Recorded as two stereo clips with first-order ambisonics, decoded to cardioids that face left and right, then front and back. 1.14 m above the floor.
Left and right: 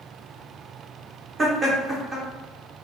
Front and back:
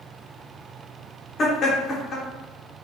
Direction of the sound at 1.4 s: 40° right.